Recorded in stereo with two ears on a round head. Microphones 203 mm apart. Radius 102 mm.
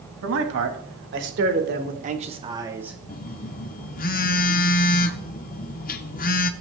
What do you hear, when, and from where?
0.2 s a man speaking: 65° right (ahead or behind), 1.8 m; by 3.0 s 5° right (ahead or behind), 1.0 m
3.1 s a phone buzzing: 40° left (ahead or behind), 0.5 m